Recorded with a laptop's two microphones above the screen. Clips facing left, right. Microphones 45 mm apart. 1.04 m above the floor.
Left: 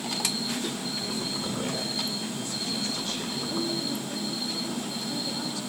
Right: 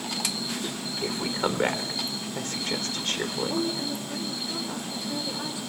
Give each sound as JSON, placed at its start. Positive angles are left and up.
{"t": 1.0, "sound": "a woman speaking", "side_deg": -55, "distance_m": 3.5}
{"t": 3.5, "sound": "a woman speaking", "side_deg": -20, "distance_m": 4.0}